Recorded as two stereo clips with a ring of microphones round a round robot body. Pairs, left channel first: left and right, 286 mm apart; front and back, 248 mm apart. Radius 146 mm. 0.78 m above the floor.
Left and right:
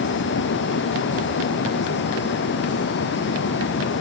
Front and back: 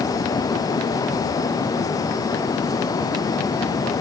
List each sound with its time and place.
Only background noise.